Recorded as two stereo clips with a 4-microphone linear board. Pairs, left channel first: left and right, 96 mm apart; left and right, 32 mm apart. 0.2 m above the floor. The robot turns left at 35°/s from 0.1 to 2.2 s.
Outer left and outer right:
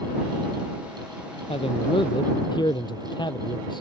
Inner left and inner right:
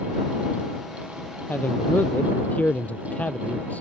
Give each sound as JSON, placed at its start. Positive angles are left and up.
{"t": 1.5, "sound": "a man speaking", "side_deg": 75}